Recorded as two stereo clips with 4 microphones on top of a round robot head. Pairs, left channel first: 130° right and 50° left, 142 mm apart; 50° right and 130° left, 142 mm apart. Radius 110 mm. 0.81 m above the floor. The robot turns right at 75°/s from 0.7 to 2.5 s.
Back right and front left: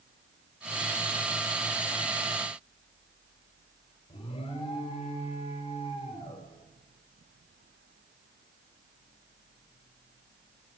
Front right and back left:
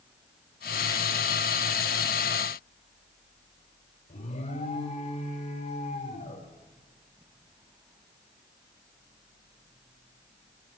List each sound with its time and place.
4.1 s an alarm: 85° right, 4.5 m